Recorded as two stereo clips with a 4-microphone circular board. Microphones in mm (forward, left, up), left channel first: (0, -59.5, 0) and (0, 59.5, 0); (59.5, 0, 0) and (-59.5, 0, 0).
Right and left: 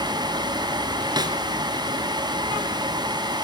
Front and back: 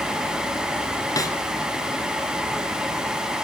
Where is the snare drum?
50° left, 1.6 m.